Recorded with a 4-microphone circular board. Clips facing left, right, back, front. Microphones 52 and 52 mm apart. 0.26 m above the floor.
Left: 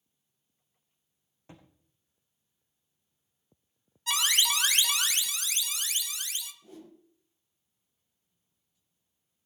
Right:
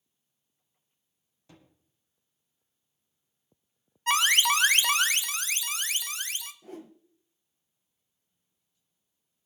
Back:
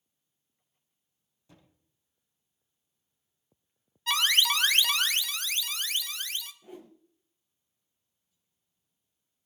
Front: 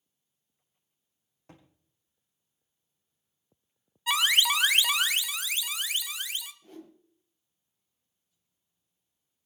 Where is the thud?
35° left, 5.5 m.